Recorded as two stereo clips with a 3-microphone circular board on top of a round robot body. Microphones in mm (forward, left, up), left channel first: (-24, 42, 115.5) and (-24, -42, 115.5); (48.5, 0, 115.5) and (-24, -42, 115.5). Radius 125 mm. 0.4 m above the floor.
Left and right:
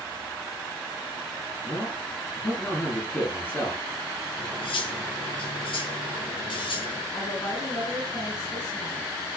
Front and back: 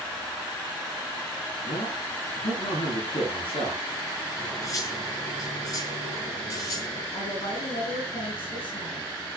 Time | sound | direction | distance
1.6 | a man speaking | 25° left | 7 m
4.4 | cutlery clinking | 80° left | 4.5 m
7.1 | a woman speaking | 30° left | 5.5 m